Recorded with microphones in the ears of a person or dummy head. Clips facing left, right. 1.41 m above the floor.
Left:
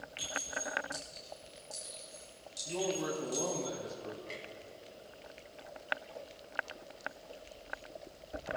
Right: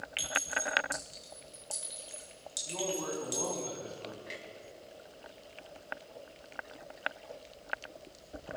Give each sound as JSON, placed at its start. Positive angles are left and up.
{"t": 0.2, "sound": "a clink", "side_deg": -45, "distance_m": 4.0}
{"t": 2.6, "sound": "a man speaking", "side_deg": 25, "distance_m": 3.0}
{"t": 4.3, "sound": "a clunk", "side_deg": -15, "distance_m": 2.0}